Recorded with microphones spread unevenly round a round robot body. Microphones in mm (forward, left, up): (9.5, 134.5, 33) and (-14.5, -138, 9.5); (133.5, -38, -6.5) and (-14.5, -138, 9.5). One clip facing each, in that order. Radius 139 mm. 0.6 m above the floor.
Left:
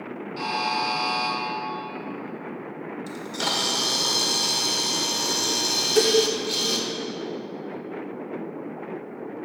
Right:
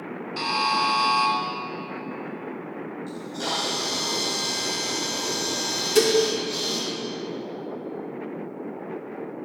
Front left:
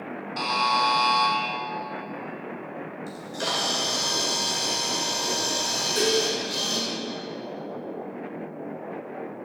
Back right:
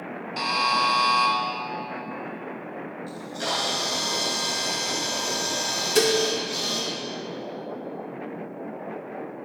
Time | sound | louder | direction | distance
0.4 | a buzzer | right 1 dB, front left 1 dB | 75° right | 3 m
3.1 | a camera shutter | even, back right 1 dB | 90° left | 1.5 m
6.0 | dishes clattering | right 1 dB, back right 3 dB | 165° right | 0.9 m